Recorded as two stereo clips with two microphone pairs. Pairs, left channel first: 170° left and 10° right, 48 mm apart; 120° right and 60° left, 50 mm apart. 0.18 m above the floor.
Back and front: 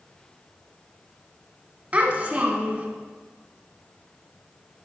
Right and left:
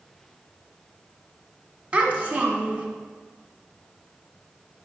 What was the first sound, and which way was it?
A child speaking, 25° left.